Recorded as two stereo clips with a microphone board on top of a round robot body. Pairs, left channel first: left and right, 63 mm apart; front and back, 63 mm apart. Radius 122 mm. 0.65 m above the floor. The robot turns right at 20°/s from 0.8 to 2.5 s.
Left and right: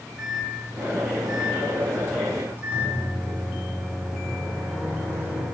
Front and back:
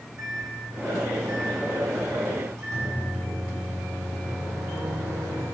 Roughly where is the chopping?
I don't hear chopping.